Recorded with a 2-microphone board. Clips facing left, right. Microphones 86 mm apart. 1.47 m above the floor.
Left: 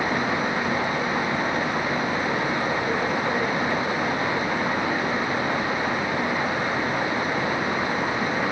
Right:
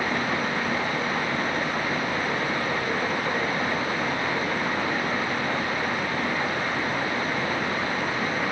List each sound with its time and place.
Only background noise.